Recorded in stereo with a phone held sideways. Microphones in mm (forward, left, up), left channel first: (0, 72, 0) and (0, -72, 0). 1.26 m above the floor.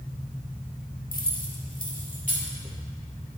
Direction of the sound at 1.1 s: 80° left.